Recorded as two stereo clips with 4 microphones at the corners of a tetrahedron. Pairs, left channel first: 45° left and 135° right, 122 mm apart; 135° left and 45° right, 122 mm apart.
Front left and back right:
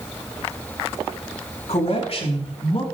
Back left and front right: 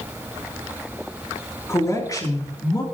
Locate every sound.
1.7 s a man speaking: 70° left, 3.5 m; by 2.8 s 80° left, 3.5 m